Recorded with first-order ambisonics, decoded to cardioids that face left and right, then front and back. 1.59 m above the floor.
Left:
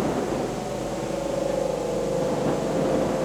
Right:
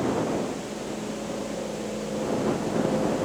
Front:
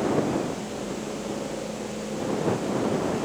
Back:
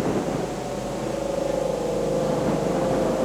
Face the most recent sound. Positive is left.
turn(degrees=160)